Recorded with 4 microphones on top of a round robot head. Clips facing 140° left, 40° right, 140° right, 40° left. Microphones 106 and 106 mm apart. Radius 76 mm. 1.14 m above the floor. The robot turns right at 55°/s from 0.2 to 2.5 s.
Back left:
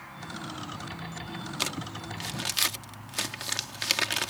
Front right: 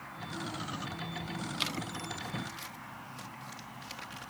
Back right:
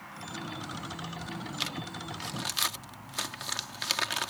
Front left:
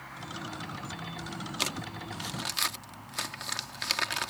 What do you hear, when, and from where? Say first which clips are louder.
1.6 s crumpling: back left 2 dB, front left 1 dB; 85° left; by 4.3 s 135° left